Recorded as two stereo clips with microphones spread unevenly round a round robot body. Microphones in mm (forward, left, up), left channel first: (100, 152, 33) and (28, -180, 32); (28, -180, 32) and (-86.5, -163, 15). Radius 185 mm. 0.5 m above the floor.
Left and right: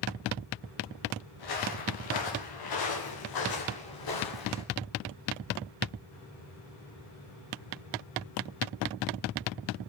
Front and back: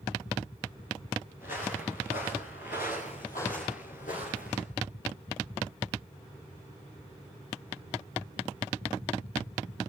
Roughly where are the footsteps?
Ahead left.